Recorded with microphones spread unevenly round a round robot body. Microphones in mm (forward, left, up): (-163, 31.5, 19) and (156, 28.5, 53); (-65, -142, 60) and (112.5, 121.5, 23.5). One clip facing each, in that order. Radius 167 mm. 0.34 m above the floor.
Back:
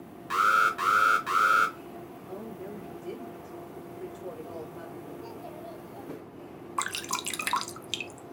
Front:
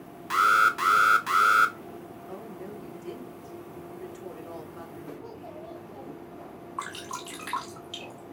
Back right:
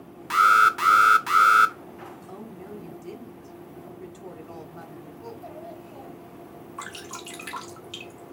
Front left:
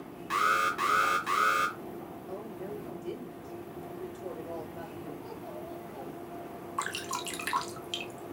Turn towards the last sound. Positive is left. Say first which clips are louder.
# back 1 dB, front left 1 dB
turn(degrees=135)